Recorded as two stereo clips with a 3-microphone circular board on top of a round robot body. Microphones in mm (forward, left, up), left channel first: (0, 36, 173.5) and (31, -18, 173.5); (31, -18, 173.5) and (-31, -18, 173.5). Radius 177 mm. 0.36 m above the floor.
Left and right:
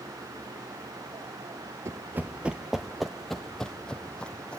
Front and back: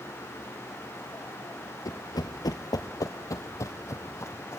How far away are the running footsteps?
About 0.5 m.